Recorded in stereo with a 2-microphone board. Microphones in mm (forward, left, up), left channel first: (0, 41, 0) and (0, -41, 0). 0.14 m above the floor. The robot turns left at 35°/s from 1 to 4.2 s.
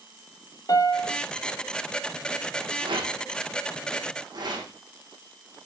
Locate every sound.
0.7 s a piano: 50° left (ahead or behind), 0.9 m; by 1.2 s 45° left (ahead or behind), 0.9 m
2.8 s a rattle: 70° right (ahead or behind), 3 m; by 4.7 s 55° right (ahead or behind), 3 m